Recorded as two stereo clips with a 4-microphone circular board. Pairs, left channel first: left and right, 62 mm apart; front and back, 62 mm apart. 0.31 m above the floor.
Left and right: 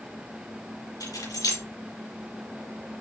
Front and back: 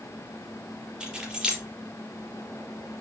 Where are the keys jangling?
100° left, 4 m.